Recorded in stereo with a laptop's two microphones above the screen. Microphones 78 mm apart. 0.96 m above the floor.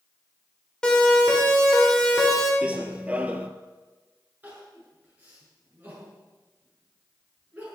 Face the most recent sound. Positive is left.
turn(degrees=-20)  # may be behind; listen again after turning